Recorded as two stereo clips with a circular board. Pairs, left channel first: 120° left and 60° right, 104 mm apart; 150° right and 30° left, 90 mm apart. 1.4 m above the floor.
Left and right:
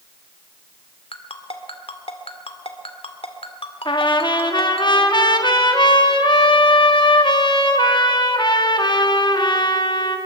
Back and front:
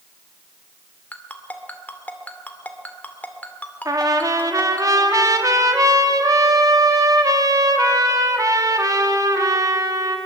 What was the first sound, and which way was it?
A ringtone, 140° left.